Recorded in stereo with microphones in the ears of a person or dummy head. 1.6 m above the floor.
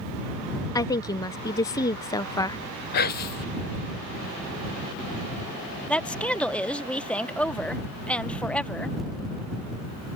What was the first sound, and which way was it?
A woman speaking, 10° left (ahead or behind).